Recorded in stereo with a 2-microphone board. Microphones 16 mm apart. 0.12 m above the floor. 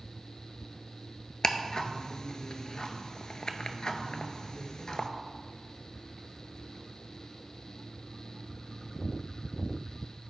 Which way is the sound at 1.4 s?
50° left (ahead or behind).